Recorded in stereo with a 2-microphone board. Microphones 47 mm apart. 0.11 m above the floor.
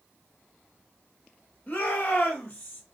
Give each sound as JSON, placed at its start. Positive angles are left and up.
{"t": 1.7, "sound": "a shout", "side_deg": 45, "distance_m": 1.5}